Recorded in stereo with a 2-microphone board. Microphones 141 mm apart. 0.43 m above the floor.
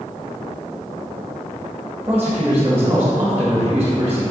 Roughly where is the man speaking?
Centre.